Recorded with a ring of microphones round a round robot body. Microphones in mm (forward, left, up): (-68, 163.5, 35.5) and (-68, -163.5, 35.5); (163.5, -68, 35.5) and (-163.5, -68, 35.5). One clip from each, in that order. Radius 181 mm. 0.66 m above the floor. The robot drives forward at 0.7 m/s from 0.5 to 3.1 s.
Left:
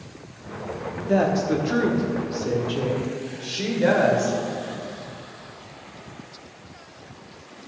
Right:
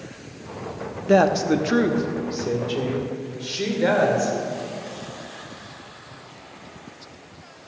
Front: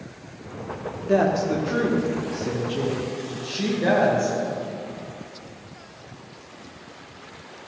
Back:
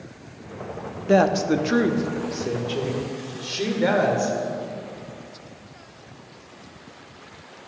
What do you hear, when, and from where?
1.1 s a woman speaking: 130° right, 0.8 m; by 4.3 s 165° right, 1.9 m